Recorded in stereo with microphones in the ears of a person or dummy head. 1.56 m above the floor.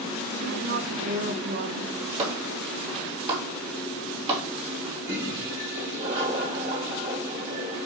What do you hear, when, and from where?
0.3 s a woman speaking: 55° right (ahead or behind), 1.3 m
2.2 s a clap: 30° right (ahead or behind), 2 m
5.0 s a toilet flushing: 45° right (ahead or behind), 2 m